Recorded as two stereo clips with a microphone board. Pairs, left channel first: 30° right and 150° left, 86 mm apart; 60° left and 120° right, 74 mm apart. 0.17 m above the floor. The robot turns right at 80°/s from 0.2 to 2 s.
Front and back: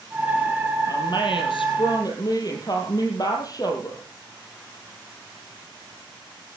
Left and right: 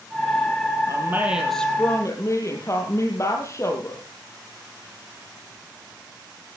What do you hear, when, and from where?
0.9 s a woman speaking: 80° right, 5 m; by 4.0 s 10° left, 5 m